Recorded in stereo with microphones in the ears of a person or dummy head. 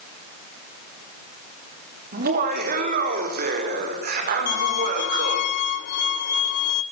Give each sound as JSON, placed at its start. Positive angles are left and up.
{"t": 2.1, "sound": "laughter", "side_deg": -60, "distance_m": 5.0}
{"t": 4.5, "sound": "a violin", "side_deg": 50, "distance_m": 1.1}